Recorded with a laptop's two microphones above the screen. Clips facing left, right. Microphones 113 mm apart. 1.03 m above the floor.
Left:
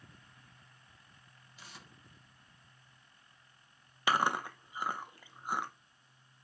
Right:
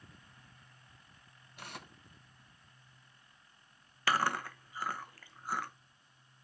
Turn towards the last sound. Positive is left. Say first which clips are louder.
# left 1 dB
turn(degrees=20)  # may be behind; listen again after turning